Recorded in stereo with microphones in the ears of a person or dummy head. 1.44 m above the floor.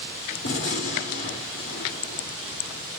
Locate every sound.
0.4 s a gunshot: 60° left (ahead or behind), 1.9 m